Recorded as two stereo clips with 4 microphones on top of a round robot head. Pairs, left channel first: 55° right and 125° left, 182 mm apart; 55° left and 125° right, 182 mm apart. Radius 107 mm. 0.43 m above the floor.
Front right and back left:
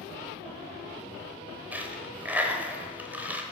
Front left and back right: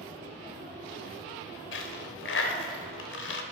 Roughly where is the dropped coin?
Ahead left.